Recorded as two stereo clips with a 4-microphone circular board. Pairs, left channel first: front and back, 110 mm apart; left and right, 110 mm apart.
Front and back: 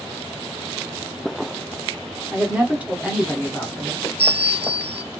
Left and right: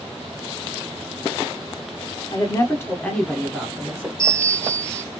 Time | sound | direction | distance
2.3 | a woman speaking | 125° left | 1.3 m
4.2 | a bell | 145° right | 1.1 m